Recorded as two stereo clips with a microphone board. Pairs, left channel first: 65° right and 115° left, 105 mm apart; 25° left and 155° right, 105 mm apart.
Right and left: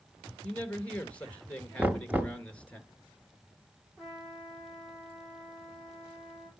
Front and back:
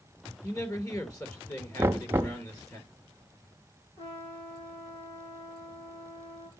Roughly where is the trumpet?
Ahead.